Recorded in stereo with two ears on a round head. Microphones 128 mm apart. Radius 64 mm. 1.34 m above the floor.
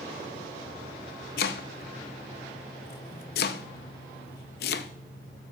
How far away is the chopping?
About 0.6 m.